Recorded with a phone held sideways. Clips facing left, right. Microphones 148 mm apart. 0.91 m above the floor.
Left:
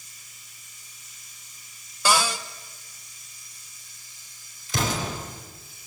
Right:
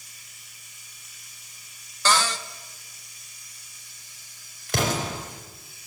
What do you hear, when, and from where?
0.0 s running water: 70° right (ahead or behind), 5.5 m
2.0 s a cupboard door: 10° left (ahead or behind), 1.2 m
4.7 s an explosion: 65° right (ahead or behind), 5.5 m